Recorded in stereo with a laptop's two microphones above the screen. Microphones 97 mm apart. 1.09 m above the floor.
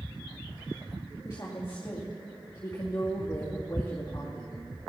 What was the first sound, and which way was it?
A woman speaking, 30° left (ahead or behind).